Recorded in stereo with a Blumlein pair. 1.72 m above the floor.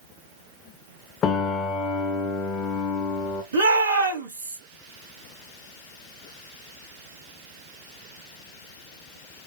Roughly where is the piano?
Ahead left.